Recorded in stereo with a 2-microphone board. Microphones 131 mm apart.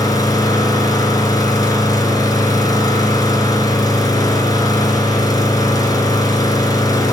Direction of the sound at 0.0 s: 30° left (ahead or behind).